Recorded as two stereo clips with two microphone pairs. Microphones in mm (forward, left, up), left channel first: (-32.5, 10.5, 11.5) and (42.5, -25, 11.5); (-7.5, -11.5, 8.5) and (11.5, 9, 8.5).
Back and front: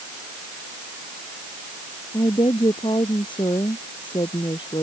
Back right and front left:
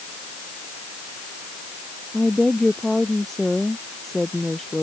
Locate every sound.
2.1 s a woman speaking: 150° left